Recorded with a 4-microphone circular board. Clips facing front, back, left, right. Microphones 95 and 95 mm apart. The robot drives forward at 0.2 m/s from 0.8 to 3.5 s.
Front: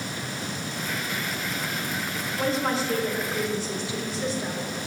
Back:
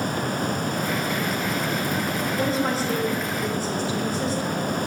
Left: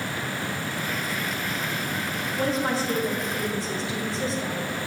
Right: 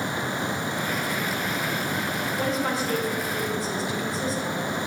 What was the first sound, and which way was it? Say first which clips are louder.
A woman speaking: even, left 3 dB; 140° left.